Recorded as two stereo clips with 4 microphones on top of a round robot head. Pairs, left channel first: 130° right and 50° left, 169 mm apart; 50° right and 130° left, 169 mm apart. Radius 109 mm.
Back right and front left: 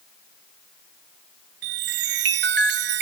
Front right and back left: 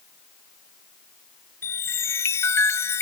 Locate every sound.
1.6 s a chime: 25° left